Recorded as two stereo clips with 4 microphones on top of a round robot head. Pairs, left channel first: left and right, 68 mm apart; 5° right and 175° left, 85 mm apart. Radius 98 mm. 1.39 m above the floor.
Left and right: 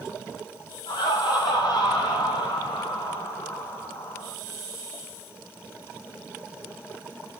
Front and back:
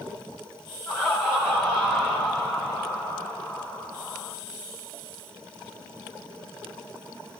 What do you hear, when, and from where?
0.9 s laughter: 70° left, 7 m